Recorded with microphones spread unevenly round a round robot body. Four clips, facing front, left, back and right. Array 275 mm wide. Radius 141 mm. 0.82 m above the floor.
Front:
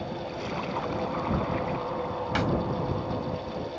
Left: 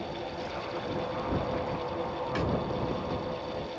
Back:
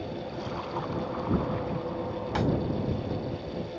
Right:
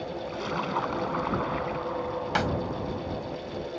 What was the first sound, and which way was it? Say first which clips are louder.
A splash: right 5 dB, front 2 dB; 60° right.